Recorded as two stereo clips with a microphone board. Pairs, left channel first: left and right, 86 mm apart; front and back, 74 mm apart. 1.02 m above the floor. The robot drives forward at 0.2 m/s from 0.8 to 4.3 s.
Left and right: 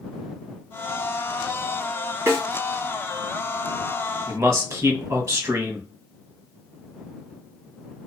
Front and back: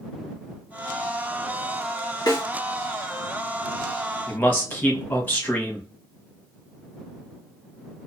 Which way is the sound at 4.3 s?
55° right.